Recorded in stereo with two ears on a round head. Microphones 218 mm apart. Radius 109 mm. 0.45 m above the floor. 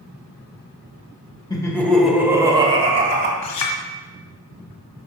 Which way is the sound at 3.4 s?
75° left (ahead or behind).